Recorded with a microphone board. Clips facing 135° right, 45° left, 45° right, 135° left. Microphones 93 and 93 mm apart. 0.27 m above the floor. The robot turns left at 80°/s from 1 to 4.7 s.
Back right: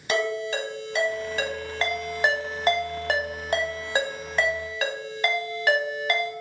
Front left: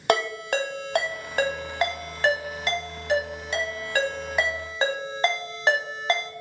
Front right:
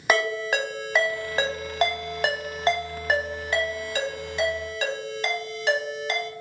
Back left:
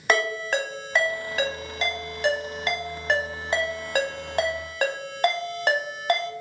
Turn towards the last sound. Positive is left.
turn(degrees=100)